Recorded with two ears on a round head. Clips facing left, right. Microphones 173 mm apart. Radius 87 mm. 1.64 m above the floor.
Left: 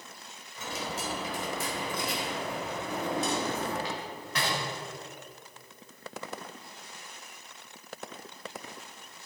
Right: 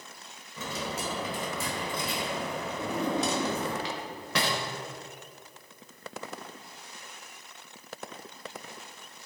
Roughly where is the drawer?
Right.